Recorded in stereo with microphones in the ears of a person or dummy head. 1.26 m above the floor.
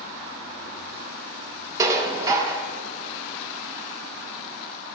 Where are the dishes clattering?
20° right (ahead or behind), 0.6 m.